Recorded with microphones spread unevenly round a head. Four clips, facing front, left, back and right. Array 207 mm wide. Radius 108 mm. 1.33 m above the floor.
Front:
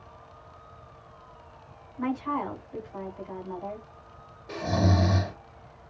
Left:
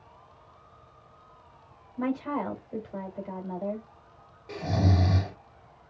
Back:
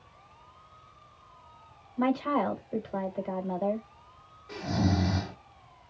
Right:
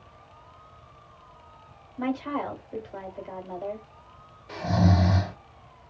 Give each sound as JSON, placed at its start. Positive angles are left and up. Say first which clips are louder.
{"t": 2.0, "sound": "a woman speaking", "louder": "right 1 dB, back 3 dB", "azimuth_deg": 165, "distance_m": 2.5}
{"t": 4.5, "sound": "snoring", "louder": "right 3 dB, front 3 dB", "azimuth_deg": 40, "distance_m": 1.9}